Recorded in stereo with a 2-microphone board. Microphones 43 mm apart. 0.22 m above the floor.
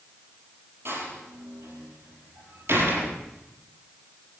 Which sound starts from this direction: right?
A door slam, at 0.8 s.